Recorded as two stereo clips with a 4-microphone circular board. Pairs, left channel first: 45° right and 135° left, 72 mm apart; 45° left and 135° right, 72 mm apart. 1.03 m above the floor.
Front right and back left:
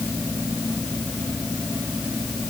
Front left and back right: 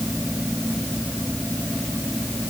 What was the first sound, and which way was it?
Only background noise.